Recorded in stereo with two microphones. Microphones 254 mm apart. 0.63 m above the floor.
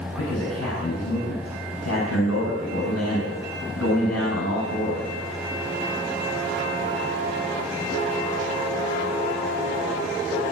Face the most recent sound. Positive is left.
turn(degrees=75)  # may be behind; listen again after turning